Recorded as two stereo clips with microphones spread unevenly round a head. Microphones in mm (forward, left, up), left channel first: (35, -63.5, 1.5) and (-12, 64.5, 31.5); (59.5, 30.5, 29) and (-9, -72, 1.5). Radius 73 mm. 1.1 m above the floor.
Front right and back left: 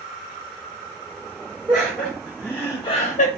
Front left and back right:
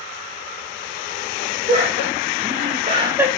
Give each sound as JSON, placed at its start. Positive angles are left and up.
{"t": 1.7, "sound": "laughter", "azimuth_deg": -165, "distance_m": 1.8}